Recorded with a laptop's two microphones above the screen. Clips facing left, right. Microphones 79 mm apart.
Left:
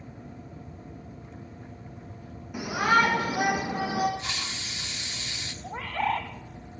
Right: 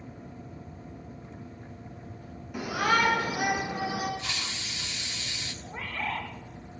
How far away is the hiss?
About 0.8 m.